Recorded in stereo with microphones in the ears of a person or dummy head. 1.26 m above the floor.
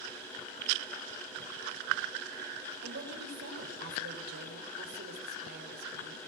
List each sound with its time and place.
2.8 s a woman speaking: 55° right (ahead or behind), 4.5 m